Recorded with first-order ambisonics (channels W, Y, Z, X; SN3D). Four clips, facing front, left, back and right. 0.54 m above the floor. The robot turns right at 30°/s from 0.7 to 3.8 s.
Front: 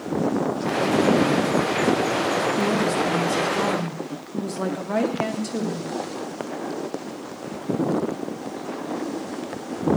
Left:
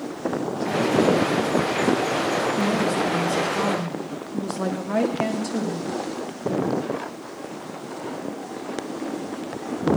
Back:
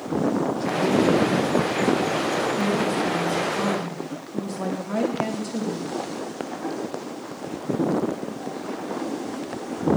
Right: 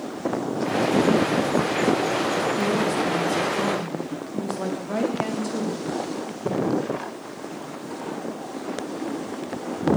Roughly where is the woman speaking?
Ahead.